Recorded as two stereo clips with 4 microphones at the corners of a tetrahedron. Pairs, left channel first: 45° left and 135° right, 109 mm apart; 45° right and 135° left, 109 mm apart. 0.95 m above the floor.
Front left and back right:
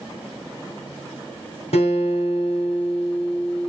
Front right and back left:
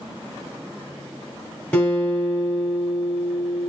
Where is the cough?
I don't hear a cough.